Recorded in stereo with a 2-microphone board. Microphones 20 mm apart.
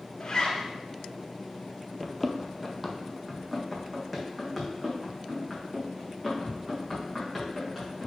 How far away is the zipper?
About 1.8 m.